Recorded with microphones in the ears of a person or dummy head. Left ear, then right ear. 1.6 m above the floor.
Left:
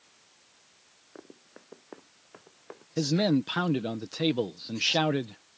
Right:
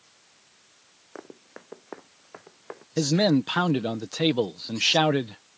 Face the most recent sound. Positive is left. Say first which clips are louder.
# right 4 dB
turn(degrees=-15)  # may be behind; listen again after turning